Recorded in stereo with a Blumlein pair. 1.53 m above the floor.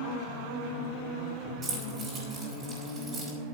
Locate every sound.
1.6 s keys jangling: 25° right, 5 m